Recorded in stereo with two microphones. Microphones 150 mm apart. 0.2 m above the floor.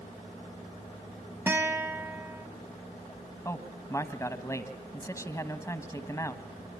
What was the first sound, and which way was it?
A guitar, 15° right (ahead or behind).